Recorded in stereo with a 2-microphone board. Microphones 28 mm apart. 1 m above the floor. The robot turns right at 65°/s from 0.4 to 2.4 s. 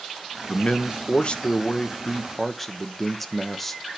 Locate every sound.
0.5 s a man speaking: 45° left, 0.9 m; by 3.8 s 170° left, 0.9 m